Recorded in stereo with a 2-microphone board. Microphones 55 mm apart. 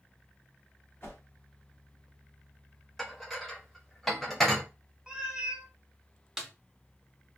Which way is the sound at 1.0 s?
40° left (ahead or behind).